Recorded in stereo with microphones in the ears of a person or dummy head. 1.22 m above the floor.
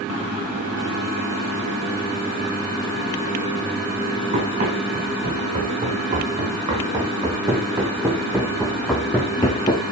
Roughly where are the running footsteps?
Right.